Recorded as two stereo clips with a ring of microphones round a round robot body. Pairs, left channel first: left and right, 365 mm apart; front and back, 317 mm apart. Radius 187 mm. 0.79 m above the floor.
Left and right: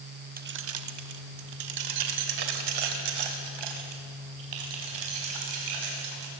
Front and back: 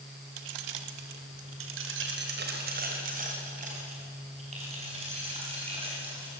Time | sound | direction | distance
0.4 | keys jangling | 155° right | 1.2 m